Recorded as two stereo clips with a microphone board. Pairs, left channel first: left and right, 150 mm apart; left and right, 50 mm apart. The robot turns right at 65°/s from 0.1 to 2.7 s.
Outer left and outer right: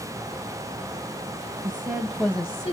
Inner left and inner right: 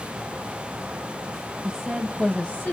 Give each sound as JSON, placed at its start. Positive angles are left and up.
{"t": 1.6, "sound": "a woman speaking", "azimuth_deg": -35, "distance_m": 0.6}